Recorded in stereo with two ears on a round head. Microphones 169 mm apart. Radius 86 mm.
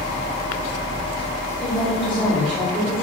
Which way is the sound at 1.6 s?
20° left (ahead or behind).